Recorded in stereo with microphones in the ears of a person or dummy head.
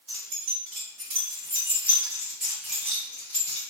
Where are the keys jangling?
55° right (ahead or behind), 1.7 m; by 3.6 s 15° left (ahead or behind), 2.0 m.